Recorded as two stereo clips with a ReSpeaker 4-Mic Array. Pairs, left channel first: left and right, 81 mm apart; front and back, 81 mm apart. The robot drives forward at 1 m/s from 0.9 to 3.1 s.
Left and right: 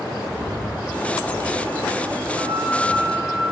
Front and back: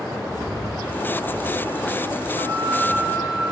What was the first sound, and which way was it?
Breathing, 25° right.